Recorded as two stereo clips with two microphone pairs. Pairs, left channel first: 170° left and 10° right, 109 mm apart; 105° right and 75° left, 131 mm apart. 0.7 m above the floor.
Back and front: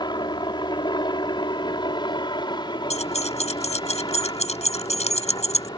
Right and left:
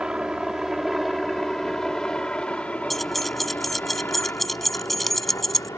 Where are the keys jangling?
170° left.